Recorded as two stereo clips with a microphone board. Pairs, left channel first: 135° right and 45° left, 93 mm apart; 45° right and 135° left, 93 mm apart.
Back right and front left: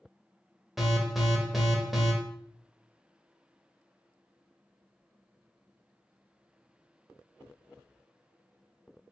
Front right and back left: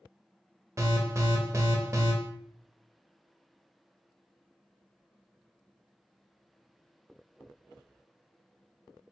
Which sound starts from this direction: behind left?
An alarm, at 0.8 s.